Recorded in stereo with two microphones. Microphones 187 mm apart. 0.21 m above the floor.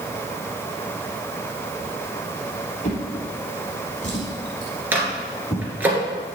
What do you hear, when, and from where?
2.8 s a drawer: 40° left (ahead or behind), 3 m
4.9 s a microwave: 10° right (ahead or behind), 2.5 m